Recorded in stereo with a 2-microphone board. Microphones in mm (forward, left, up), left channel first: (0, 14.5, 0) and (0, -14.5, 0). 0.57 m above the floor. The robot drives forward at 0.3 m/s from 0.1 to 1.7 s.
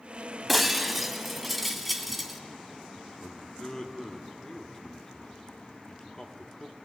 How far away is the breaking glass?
About 0.9 m.